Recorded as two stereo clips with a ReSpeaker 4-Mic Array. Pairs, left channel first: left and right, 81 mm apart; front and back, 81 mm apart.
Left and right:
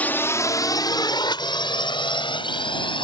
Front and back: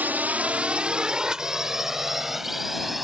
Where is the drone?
140° left; by 3.0 s 95° left.